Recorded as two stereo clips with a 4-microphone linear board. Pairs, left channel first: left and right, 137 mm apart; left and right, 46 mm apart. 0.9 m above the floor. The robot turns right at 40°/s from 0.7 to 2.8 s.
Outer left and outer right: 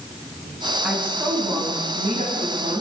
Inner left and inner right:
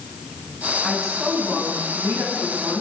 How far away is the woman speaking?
About 7.5 m.